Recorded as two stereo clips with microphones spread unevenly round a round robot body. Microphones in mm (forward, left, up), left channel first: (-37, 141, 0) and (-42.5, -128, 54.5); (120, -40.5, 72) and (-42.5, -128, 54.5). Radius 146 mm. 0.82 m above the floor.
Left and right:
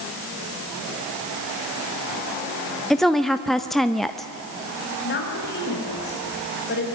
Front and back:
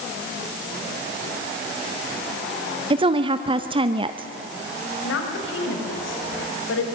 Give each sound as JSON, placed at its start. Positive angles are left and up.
{"t": 2.9, "sound": "a woman speaking", "azimuth_deg": 165, "distance_m": 0.8}
{"t": 5.0, "sound": "a woman speaking", "azimuth_deg": 35, "distance_m": 5.0}